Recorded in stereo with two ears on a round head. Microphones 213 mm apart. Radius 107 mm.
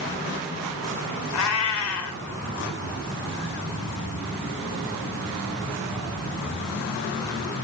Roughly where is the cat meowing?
Left.